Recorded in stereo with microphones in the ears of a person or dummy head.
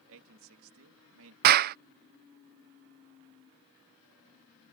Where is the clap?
45° right (ahead or behind).